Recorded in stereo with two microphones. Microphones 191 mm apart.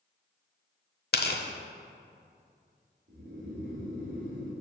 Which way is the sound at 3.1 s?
65° right (ahead or behind).